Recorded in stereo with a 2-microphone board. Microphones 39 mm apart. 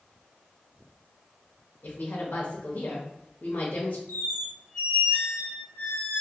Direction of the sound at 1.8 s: 55° left (ahead or behind).